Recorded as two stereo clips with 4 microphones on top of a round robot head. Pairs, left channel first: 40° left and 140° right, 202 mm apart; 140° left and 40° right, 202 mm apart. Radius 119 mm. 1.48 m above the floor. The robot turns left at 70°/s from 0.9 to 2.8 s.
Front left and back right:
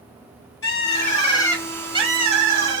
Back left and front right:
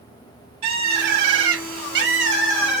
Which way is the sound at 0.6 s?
Straight ahead.